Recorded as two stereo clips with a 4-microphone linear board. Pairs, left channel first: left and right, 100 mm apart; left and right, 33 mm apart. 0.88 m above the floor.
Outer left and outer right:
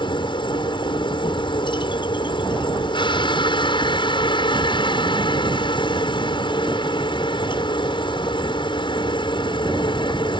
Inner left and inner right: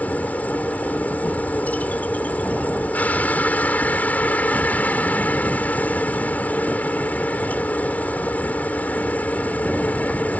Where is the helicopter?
55° left (ahead or behind).